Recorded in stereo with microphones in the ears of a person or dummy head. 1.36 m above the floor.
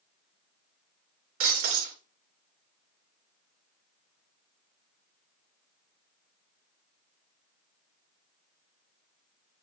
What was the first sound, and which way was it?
Breaking glass, 45° right (ahead or behind).